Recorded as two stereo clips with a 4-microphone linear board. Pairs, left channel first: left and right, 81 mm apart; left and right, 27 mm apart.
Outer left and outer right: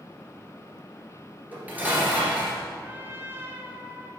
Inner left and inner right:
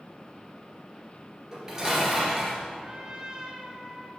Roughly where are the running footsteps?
I don't hear running footsteps.